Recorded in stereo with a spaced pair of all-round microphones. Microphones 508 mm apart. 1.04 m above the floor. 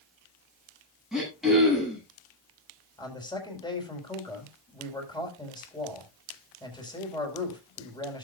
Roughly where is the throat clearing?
Centre.